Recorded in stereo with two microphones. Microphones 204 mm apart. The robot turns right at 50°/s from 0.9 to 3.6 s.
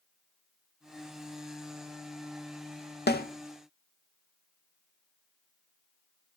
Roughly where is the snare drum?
Left.